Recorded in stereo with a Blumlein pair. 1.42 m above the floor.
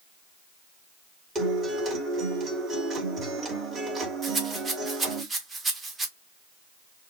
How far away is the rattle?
About 1.6 m.